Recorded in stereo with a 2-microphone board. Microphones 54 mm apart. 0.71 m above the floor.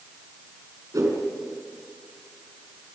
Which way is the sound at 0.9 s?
85° right.